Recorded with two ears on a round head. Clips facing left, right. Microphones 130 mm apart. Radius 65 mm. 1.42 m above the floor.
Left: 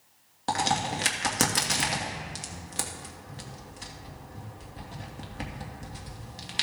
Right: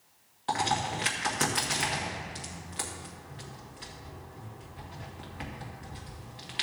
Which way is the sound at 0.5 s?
50° left (ahead or behind).